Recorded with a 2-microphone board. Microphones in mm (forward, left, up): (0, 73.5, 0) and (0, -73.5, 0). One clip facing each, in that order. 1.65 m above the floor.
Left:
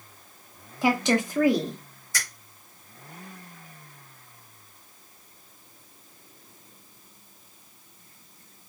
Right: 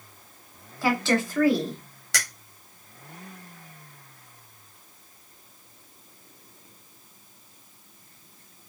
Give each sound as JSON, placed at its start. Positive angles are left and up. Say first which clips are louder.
{"t": 0.8, "sound": "a woman speaking", "louder": "left 1 dB", "side_deg": 15, "distance_m": 1.2}
{"t": 2.1, "sound": "a finger snap", "louder": "right 3 dB", "side_deg": -85, "distance_m": 1.3}